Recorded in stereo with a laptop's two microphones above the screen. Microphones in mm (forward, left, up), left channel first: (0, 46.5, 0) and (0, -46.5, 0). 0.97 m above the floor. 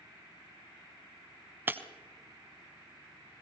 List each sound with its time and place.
1.7 s breaking glass: 25° right (ahead or behind), 1.2 m